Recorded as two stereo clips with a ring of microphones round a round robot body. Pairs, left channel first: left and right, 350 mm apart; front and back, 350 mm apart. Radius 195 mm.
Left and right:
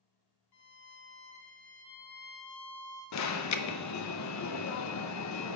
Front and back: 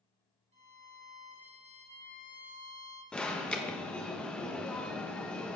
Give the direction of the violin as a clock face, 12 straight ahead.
8 o'clock.